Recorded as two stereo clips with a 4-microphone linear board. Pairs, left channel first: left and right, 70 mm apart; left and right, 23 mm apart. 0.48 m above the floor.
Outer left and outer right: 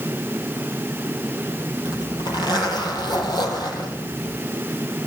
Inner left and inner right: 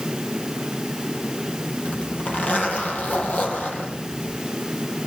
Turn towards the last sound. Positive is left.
turn(degrees=85)